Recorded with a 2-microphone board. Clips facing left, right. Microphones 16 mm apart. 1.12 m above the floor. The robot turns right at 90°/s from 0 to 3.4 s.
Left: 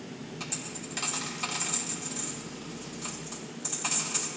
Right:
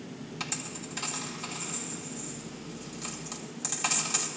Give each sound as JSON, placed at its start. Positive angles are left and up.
{"t": 0.4, "sound": "a dropped coin", "side_deg": -35, "distance_m": 2.5}